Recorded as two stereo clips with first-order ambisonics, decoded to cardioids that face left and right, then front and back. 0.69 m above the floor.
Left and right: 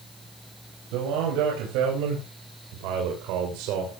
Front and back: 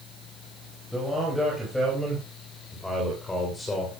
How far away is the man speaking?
About 5 m.